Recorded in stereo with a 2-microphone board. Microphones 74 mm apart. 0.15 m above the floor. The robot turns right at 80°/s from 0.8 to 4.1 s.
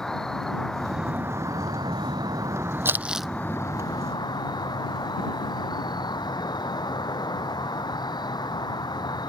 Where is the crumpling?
35° right (ahead or behind); by 3.3 s centre (ahead or behind).